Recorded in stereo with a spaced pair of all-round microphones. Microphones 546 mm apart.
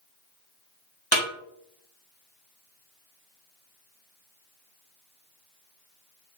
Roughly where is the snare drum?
Right.